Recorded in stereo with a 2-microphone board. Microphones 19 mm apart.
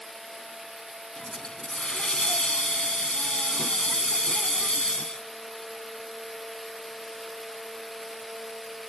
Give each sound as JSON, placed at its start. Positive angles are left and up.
{"t": 1.2, "sound": "a hiss", "side_deg": 60}